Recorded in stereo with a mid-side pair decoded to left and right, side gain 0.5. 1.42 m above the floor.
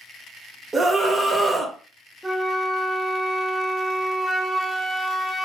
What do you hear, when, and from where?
0.7 s a scream: 30° right, 1.5 m
2.2 s a flute: 15° right, 1.3 m